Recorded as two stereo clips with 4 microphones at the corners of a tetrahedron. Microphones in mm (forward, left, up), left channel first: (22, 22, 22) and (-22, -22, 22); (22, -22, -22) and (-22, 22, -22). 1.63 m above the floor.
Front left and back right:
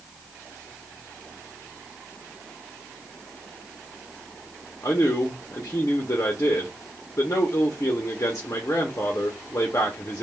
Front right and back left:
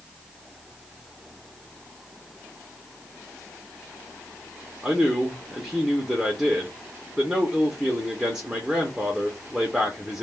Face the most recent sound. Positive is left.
turn(degrees=60)